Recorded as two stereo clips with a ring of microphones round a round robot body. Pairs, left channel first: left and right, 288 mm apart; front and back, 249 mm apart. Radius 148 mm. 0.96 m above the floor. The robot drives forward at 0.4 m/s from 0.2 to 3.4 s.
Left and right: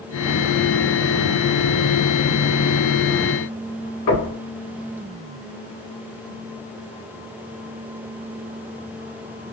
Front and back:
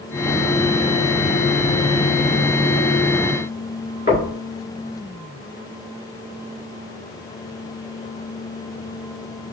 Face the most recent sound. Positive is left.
turn(degrees=60)